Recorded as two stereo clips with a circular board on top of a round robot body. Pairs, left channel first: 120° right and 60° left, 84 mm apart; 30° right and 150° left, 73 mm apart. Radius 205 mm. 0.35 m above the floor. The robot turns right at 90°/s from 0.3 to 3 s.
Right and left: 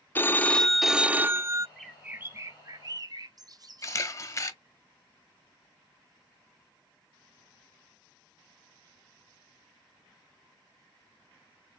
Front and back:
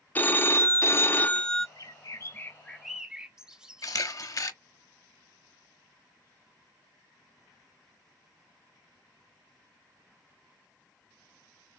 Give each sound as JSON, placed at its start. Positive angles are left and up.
{"t": 0.1, "sound": "a phone ringing", "azimuth_deg": -75, "distance_m": 0.6}
{"t": 1.8, "sound": "a bird", "azimuth_deg": -40, "distance_m": 0.7}
{"t": 3.8, "sound": "a camera shutter", "azimuth_deg": -70, "distance_m": 0.8}